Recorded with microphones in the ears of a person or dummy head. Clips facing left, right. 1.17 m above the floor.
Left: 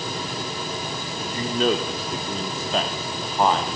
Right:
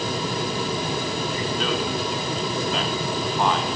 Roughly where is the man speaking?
Left.